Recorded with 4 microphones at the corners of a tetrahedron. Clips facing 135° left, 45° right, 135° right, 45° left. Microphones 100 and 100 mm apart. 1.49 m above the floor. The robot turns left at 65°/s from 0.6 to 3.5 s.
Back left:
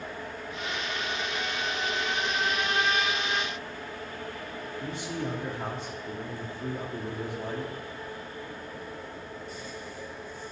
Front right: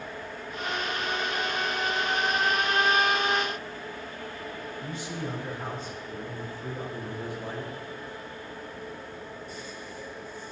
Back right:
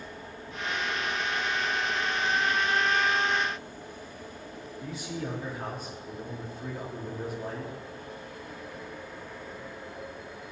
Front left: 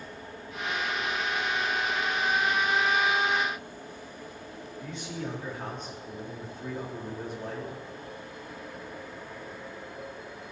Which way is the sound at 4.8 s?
140° left.